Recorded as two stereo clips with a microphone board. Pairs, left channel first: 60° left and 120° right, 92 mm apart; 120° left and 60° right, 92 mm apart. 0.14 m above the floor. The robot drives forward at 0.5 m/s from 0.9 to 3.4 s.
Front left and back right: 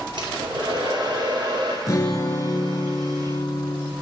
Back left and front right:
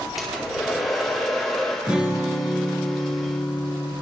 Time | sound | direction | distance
0.2 | a hair dryer | 150° right | 2 m
1.9 | a guitar | 15° left | 1.7 m